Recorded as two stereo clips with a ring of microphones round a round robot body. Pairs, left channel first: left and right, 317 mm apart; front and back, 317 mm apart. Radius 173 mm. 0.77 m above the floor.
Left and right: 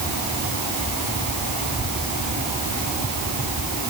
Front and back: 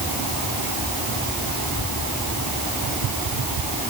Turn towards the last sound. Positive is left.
No sound to turn to.